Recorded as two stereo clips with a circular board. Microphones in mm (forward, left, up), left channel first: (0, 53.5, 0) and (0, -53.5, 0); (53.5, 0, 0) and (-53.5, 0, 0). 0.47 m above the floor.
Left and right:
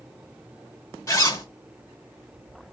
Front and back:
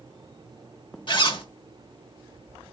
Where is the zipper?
35° left, 0.9 m.